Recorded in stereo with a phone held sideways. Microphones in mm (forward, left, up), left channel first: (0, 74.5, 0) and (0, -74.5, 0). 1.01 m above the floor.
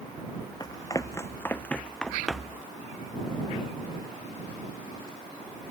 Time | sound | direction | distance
0.6 | running footsteps | 30° left (ahead or behind) | ?